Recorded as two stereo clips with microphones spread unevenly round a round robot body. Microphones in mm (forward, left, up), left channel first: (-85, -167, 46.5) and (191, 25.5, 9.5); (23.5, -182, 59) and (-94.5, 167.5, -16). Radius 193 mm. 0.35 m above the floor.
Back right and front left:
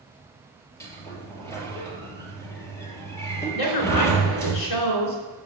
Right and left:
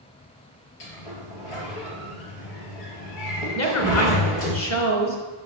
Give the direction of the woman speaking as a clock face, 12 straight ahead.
4 o'clock.